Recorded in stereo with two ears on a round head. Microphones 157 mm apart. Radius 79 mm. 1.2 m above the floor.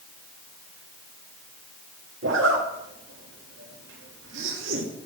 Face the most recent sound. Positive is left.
turn(degrees=-80)